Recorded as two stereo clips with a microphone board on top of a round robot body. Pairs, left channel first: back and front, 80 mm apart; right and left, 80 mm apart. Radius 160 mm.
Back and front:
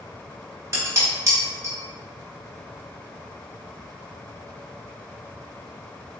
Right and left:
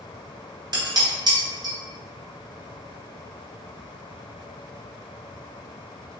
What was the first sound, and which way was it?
Dishes clattering, 55° left.